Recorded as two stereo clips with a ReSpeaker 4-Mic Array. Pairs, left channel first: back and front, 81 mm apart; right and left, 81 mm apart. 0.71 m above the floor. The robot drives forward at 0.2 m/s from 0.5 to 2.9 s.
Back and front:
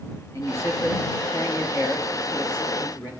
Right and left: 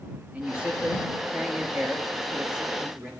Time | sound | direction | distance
0.3 | a man speaking | 160° left | 1.1 m